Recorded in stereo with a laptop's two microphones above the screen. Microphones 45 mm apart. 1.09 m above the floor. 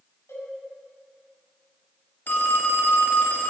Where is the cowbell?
75° left (ahead or behind), 5.5 m.